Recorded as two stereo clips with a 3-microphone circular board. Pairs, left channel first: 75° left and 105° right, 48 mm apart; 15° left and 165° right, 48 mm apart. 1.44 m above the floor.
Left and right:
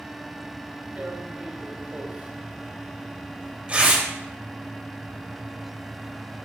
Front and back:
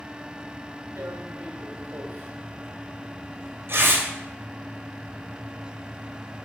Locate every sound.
1.0 s tearing paper: 170° right, 2.0 m